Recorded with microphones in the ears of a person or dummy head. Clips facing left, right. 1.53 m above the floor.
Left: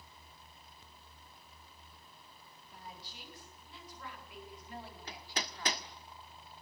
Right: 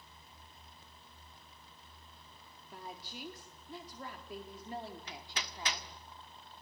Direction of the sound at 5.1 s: 35° left (ahead or behind).